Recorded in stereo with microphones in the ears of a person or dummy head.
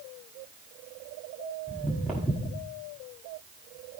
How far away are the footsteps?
About 1.2 m.